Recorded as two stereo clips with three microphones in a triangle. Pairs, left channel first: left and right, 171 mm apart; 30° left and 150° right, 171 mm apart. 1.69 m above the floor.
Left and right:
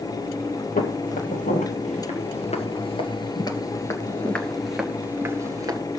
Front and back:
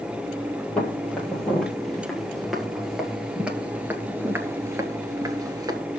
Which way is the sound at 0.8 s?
115° left.